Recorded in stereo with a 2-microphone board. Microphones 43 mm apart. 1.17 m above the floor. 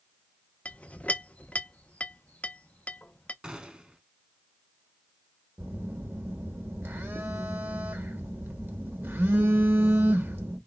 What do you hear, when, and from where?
0.7 s a clink: 30° left (ahead or behind), 0.5 m
3.4 s a gunshot: 25° right (ahead or behind), 1.0 m
5.6 s a phone buzzing: 65° right (ahead or behind), 1.2 m